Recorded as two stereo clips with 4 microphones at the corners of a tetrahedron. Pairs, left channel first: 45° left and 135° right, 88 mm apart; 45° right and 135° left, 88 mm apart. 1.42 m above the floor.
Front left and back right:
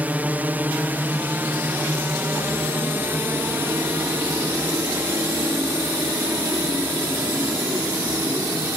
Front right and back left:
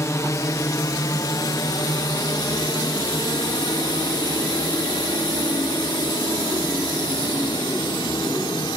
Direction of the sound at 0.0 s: 75° right.